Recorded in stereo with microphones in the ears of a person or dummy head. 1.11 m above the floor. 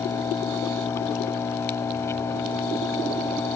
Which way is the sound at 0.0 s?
15° left (ahead or behind).